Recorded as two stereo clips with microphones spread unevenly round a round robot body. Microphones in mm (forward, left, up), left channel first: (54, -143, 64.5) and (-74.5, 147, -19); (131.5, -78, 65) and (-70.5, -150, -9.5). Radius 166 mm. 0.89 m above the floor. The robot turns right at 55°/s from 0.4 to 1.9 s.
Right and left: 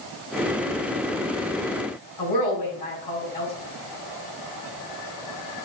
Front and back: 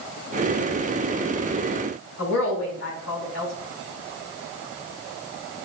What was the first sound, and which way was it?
A woman speaking, straight ahead.